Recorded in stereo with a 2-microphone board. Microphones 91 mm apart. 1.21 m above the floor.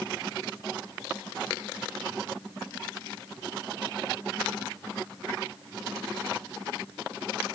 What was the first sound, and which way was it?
Only background noise.